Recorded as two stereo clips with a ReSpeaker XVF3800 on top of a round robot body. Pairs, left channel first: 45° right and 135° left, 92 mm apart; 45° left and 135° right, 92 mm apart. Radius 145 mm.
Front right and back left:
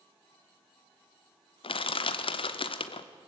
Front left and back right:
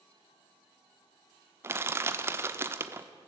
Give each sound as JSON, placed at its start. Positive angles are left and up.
{"t": 1.6, "sound": "crushing", "azimuth_deg": -70, "distance_m": 0.9}